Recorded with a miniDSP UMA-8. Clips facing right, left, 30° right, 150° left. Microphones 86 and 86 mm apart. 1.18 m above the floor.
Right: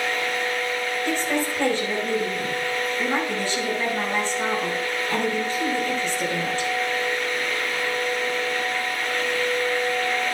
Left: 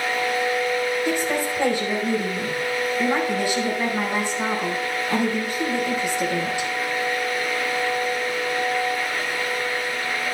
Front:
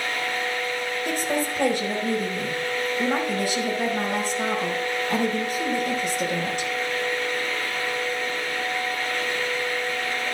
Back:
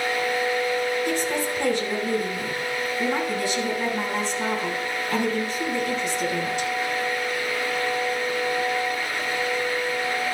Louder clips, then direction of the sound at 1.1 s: Left 1 dB, back 1 dB; 10° left.